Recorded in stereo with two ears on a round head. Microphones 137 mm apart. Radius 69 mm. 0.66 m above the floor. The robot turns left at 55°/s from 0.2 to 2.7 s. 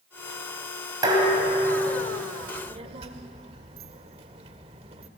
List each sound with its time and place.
1.0 s dishes clattering: 25° right, 3 m; by 2.2 s 90° right, 3 m
2.4 s a child speaking: 20° right (ahead or behind), 1.5 m; by 5.1 s 35° right (ahead or behind), 1.5 m